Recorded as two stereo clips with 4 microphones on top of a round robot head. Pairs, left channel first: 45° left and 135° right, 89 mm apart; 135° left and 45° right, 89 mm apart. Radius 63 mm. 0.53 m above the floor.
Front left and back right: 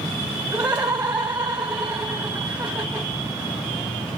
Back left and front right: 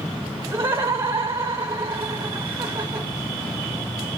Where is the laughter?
70° right, 0.7 m.